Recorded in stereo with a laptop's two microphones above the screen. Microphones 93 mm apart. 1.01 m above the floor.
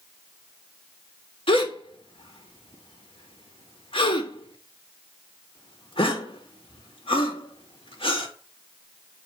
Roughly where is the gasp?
Left.